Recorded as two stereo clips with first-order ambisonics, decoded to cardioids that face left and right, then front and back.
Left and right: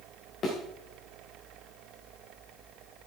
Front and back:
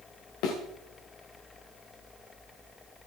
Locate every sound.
0.4 s a thud: 30° left, 5 m